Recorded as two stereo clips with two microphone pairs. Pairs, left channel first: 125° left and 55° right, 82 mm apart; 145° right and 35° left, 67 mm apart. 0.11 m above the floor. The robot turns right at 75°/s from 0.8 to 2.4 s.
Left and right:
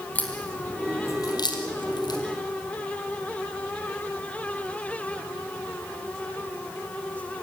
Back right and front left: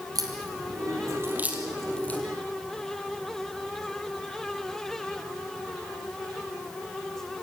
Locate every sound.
0.1 s a crack: 50° left, 3.5 m; by 2.2 s 160° left, 3.5 m